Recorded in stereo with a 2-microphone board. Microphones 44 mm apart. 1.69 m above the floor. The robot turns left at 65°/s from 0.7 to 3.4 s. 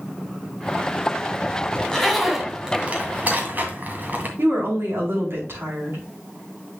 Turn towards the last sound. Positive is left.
turn(degrees=-65)  # may be behind; listen again after turning